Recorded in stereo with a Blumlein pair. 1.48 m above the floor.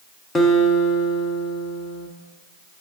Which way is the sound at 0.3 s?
15° left.